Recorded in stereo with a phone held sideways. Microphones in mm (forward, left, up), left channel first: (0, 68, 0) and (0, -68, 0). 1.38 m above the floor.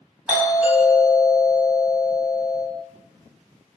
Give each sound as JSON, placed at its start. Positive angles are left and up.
{"t": 0.3, "sound": "a doorbell", "side_deg": -5, "distance_m": 1.4}